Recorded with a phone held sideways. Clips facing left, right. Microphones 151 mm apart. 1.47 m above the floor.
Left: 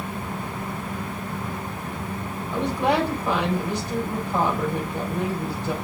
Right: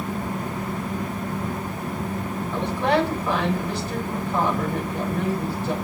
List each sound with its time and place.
0.0 s a fan: 40° right (ahead or behind), 3.5 m
2.5 s a woman speaking: 15° left (ahead or behind), 7.5 m